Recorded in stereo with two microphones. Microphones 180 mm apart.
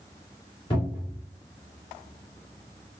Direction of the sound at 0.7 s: 30° left (ahead or behind).